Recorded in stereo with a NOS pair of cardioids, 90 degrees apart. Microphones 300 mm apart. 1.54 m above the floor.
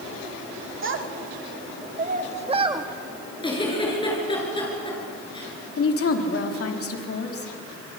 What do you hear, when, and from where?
0.8 s a child speaking: 45° right, 2.5 m; by 2.9 s 15° right, 1.6 m
3.4 s a giggle: 15° left, 6.5 m
5.8 s a woman speaking: 50° left, 3.5 m